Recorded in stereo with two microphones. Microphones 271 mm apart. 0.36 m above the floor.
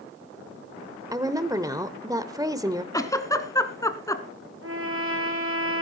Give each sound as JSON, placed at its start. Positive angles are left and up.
{"t": 1.1, "sound": "a woman speaking", "side_deg": -15, "distance_m": 0.9}
{"t": 2.9, "sound": "a giggle", "side_deg": 10, "distance_m": 1.1}
{"t": 4.6, "sound": "a trumpet", "side_deg": -50, "distance_m": 1.9}